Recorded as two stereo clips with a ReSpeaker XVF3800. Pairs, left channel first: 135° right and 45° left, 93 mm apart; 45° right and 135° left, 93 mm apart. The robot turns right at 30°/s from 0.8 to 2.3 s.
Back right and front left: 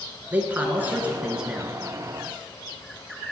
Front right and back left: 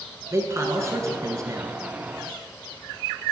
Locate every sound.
0.3 s a man speaking: 100° left, 1.4 m; by 1.8 s 130° left, 1.4 m